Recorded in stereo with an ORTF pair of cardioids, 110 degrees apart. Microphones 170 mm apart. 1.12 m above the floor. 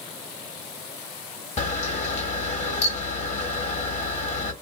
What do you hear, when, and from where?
1.6 s a camera shutter: 40° left, 1.1 m